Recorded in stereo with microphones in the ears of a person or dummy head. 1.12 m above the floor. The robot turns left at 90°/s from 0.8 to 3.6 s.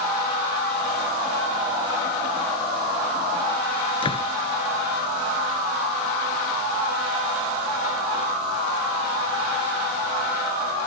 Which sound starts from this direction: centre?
A door slam, at 4.0 s.